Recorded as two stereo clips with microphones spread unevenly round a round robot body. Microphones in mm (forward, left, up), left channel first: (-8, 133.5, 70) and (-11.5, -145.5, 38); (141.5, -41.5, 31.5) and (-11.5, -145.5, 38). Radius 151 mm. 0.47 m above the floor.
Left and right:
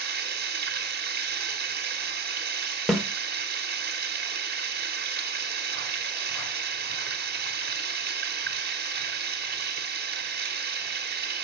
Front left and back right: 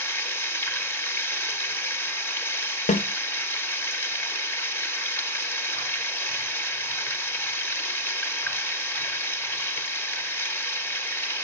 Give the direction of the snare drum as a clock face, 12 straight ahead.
12 o'clock.